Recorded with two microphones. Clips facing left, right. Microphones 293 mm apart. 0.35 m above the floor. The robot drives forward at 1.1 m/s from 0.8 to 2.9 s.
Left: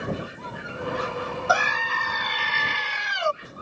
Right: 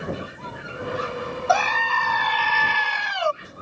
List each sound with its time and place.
1.5 s a scream: 20° left (ahead or behind); by 3.3 s 25° left (ahead or behind)